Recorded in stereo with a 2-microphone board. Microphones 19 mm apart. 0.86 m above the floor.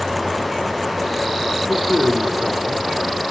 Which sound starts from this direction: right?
A man speaking, at 1.7 s.